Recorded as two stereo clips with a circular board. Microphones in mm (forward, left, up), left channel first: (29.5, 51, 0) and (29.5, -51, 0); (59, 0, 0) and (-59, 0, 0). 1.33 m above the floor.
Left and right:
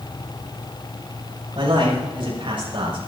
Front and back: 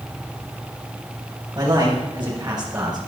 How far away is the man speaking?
About 7 m.